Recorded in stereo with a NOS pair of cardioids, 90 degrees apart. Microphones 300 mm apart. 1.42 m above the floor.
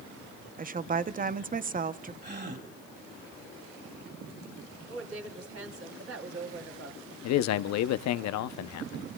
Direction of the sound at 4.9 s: 50° right.